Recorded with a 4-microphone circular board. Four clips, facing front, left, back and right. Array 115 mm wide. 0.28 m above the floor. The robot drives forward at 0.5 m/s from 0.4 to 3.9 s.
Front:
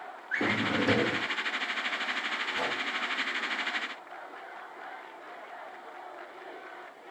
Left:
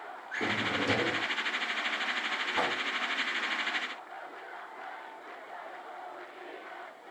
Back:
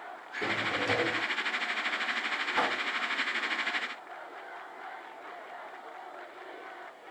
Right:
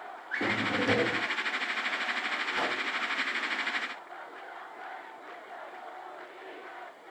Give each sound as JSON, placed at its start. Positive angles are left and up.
{"t": 0.3, "sound": "a drawer", "azimuth_deg": -10, "distance_m": 1.8}
{"t": 2.5, "sound": "a whoosh", "azimuth_deg": 150, "distance_m": 2.5}